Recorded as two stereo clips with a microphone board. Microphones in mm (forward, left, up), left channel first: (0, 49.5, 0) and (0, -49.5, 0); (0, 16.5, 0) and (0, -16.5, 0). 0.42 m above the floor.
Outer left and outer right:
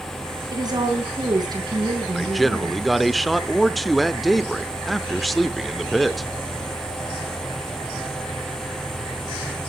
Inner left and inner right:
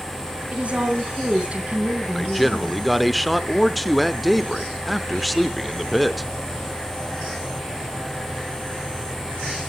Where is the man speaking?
Centre (ahead or behind), 0.7 m.